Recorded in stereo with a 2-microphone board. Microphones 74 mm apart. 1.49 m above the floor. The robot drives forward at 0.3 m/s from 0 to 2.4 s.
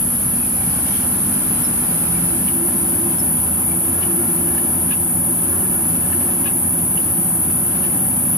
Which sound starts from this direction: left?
An insect, at 0.0 s.